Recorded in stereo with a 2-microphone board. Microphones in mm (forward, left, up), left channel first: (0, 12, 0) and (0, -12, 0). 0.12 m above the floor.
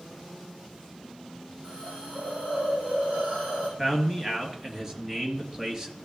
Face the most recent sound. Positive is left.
turn(degrees=-20)  # may be behind; listen again after turning